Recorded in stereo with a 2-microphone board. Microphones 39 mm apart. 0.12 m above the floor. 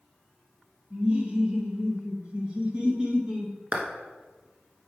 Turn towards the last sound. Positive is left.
turn(degrees=-25)  # may be behind; listen again after turning